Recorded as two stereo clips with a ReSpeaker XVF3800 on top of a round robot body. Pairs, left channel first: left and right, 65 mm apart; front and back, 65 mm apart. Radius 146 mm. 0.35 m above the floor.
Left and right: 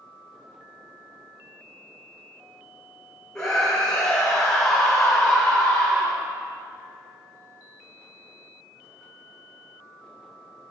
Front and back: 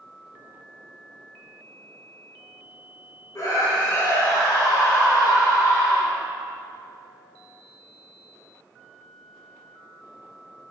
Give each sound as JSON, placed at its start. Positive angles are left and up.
{"t": 3.4, "sound": "a scream", "azimuth_deg": 10, "distance_m": 2.0}